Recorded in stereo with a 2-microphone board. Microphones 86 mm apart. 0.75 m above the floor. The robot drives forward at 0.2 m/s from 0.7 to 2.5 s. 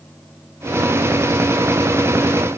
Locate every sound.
Only background noise.